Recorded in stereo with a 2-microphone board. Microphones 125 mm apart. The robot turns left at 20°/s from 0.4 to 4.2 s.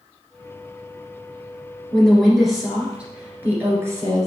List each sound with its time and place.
1.9 s a woman speaking: 10° left, 1.6 m; by 4.3 s 35° right, 1.6 m